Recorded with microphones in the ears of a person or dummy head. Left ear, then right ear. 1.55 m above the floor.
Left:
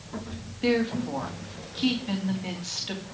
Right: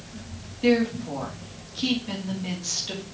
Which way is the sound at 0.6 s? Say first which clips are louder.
Right 3 dB; 15° left (ahead or behind).